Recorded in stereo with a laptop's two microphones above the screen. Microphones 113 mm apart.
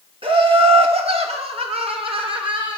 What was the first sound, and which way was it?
Laughter, 55° right (ahead or behind).